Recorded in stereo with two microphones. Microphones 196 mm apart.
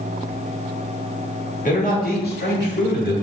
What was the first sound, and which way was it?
A man speaking, 45° left (ahead or behind).